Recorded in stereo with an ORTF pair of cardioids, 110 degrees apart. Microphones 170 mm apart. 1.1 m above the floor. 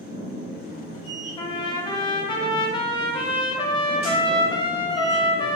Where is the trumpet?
25° left, 0.5 m.